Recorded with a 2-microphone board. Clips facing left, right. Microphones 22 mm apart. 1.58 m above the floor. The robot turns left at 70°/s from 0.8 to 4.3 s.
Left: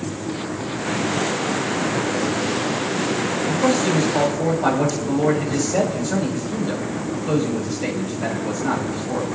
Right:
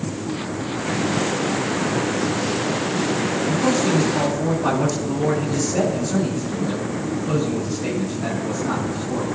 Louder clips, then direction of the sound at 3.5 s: Left 1 dB; 110° left.